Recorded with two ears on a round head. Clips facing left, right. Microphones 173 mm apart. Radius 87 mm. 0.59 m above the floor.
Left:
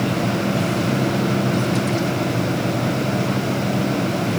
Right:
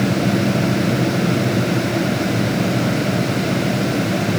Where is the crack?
No crack in this recording.